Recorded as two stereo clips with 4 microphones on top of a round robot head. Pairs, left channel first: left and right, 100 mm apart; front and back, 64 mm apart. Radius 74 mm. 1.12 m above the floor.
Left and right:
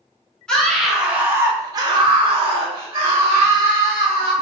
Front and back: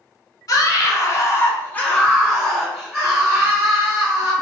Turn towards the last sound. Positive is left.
turn(degrees=-115)